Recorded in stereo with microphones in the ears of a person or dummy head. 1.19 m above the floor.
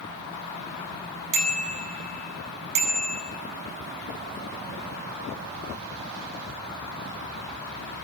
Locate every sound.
1.3 s a bicycle bell: 65° right (ahead or behind), 7.5 m